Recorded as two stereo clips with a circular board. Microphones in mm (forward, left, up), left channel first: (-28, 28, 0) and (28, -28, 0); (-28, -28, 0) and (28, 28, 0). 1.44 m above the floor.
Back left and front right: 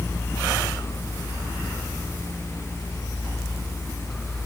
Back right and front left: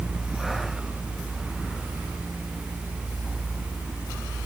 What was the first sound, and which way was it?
Only background noise.